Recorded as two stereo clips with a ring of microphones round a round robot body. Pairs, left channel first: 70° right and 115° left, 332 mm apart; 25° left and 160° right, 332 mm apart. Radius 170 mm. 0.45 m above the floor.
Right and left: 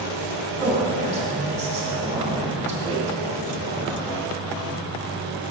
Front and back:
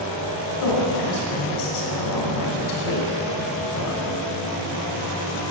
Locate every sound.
0.6 s a woman speaking: 45° left, 2.5 m